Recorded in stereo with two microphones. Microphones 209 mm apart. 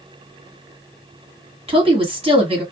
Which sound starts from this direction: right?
A woman speaking, at 1.7 s.